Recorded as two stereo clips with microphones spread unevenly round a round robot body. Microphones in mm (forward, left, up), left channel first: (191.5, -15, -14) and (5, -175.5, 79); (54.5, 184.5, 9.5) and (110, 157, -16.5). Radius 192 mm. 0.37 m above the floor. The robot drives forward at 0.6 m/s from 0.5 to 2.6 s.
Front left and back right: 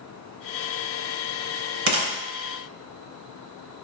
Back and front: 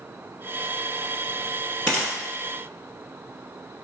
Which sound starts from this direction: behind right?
A gunshot, at 1.9 s.